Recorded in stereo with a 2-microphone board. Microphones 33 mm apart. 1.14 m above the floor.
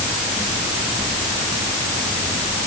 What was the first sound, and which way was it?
Only background noise.